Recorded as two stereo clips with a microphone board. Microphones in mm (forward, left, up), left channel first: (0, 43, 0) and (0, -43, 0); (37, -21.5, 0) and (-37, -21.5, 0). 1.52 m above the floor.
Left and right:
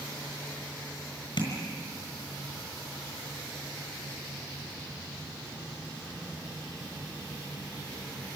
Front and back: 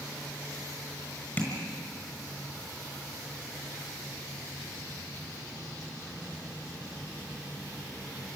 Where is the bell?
No bell in this recording.